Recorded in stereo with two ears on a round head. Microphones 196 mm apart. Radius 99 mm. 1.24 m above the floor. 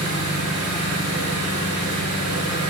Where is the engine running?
80° right, 8.5 m.